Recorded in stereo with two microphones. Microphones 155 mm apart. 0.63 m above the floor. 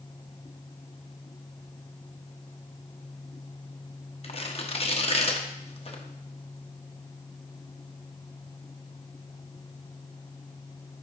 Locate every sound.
4.2 s tearing paper: 40° left (ahead or behind), 0.8 m